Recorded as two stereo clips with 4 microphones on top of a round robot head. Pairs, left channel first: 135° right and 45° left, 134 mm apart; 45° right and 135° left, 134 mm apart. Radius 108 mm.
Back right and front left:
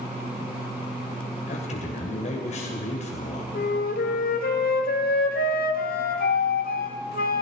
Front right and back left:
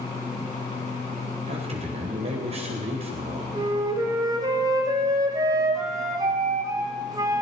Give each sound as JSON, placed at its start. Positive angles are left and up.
{"t": 1.5, "sound": "a man speaking", "azimuth_deg": -175, "distance_m": 3.0}
{"t": 3.5, "sound": "a flute", "azimuth_deg": -155, "distance_m": 1.3}